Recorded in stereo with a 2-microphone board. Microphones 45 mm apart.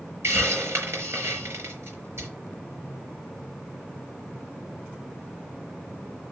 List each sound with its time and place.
0.2 s a hiss: 70° right (ahead or behind), 5.5 m